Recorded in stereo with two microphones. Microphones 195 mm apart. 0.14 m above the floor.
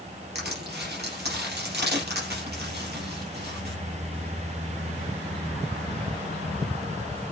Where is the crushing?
60° right (ahead or behind), 4.5 m.